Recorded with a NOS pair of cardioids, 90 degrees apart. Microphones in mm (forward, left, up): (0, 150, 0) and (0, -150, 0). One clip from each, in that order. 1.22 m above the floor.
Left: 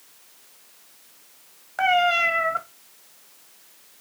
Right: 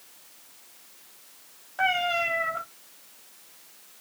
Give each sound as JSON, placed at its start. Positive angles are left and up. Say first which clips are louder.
{"t": 1.8, "sound": "a cat meowing", "louder": "left 5 dB", "azimuth_deg": 55, "distance_m": 1.6}